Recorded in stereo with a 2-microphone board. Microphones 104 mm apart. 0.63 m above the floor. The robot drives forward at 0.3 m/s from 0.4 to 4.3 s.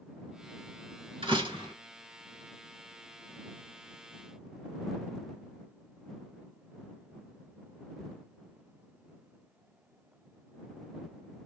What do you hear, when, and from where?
1.2 s a door slam: 50° right (ahead or behind), 2.5 m; by 1.7 s 45° right (ahead or behind), 2.5 m